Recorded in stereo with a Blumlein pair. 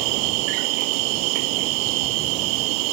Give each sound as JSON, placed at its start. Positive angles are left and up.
{"t": 0.0, "sound": "an insect", "azimuth_deg": -45}